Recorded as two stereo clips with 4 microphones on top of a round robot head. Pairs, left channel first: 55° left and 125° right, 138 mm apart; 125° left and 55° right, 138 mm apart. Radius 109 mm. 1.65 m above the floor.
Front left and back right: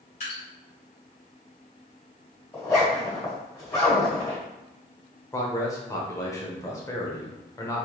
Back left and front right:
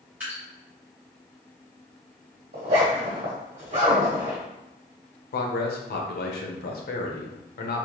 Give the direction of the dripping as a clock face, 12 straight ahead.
11 o'clock.